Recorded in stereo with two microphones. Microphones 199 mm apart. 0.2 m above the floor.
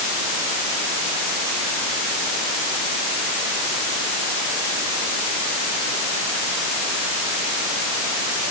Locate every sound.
Only background noise.